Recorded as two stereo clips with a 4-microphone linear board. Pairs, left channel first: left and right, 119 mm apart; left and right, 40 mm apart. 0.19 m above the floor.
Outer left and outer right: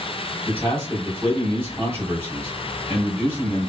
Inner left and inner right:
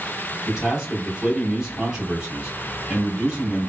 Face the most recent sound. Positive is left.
turn(degrees=-20)  # may be behind; listen again after turning